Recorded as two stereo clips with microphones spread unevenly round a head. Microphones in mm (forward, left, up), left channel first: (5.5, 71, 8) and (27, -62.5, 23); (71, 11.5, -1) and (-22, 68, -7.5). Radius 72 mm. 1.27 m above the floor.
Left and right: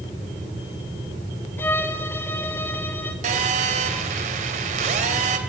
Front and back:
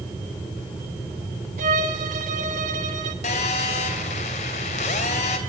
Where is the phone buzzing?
50° right, 3 m.